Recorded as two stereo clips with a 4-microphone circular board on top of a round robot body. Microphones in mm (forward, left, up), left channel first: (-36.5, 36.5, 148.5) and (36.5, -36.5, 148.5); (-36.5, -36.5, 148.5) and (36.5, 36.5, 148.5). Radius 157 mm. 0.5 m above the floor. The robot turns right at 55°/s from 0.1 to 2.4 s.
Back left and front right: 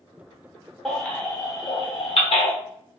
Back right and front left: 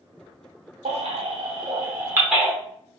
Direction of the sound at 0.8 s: 45° left.